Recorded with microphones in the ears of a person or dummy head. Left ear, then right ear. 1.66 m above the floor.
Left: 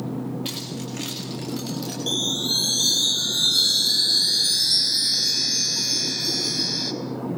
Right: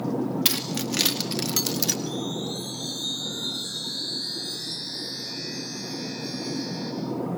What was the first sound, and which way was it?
Keys jangling, 45° right (ahead or behind).